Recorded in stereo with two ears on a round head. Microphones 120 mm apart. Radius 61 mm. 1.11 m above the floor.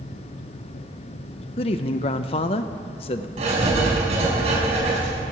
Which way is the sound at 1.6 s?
40° left (ahead or behind).